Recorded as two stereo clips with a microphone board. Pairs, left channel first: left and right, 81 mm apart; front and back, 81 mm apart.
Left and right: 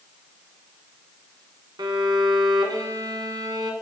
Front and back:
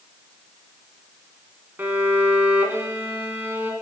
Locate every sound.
1.8 s a violin: 115° right, 1.6 m